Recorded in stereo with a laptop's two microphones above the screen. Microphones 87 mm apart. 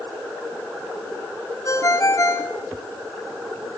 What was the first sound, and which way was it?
A ringtone, 35° left (ahead or behind).